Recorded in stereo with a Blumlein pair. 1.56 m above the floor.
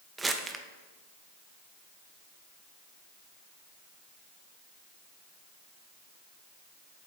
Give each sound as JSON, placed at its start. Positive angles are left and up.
{"t": 0.2, "sound": "crumpling", "azimuth_deg": -10, "distance_m": 0.8}